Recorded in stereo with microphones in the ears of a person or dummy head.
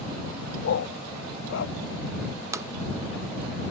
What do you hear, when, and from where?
0.6 s a dog barking: 70° left (ahead or behind)
2.5 s tapping: 15° right (ahead or behind)